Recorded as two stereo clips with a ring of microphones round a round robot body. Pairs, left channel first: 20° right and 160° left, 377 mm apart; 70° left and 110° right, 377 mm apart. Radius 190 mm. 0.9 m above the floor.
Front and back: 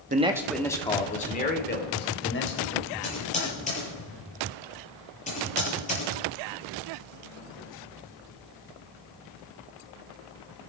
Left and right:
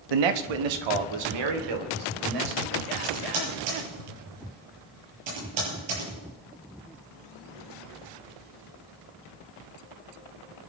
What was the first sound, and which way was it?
A man speaking, 135° right.